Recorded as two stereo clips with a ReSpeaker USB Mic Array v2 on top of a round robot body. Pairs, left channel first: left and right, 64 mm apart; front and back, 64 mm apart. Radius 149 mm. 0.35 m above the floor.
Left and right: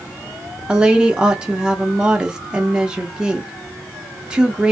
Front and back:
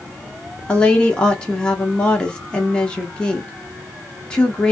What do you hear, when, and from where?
0.7 s a woman speaking: 40° right, 0.9 m